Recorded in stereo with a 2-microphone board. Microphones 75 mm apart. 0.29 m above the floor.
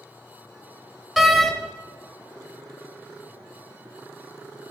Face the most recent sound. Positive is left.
turn(degrees=0)  # may be behind; listen again after turning